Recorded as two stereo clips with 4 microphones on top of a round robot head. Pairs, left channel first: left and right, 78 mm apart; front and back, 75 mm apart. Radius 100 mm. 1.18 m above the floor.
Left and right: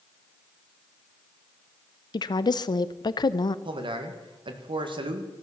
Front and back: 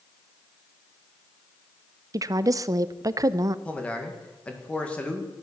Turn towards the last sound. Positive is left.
turn(degrees=-80)